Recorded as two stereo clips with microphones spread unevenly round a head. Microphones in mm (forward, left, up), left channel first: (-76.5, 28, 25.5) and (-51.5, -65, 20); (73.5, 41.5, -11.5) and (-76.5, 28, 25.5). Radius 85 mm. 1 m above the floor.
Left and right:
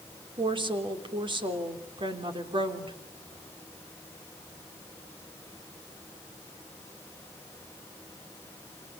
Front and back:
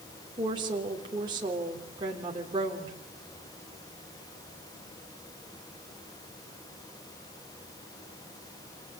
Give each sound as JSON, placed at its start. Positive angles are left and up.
{"t": 0.4, "sound": "a woman speaking", "azimuth_deg": -105, "distance_m": 3.5}